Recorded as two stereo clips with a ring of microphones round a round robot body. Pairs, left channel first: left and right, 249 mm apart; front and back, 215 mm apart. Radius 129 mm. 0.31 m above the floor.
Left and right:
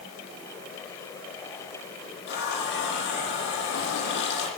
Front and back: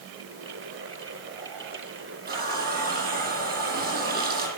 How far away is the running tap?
About 9 m.